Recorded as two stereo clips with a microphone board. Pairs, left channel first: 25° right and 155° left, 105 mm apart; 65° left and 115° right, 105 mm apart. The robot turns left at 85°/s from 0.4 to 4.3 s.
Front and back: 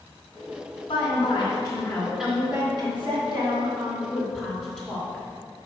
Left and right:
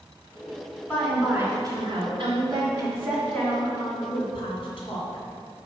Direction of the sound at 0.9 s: 20° right.